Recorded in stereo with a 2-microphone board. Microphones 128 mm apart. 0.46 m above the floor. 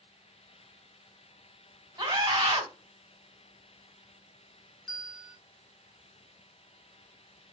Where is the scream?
40° right (ahead or behind), 1.4 m.